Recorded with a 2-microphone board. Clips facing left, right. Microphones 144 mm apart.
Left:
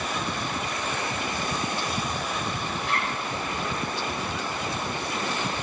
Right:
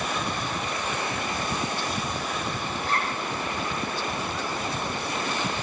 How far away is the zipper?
About 5 m.